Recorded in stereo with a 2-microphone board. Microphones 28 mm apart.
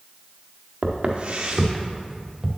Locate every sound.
0.8 s footsteps: 55° right (ahead or behind), 1.4 m; by 2.5 s 15° right (ahead or behind), 1.5 m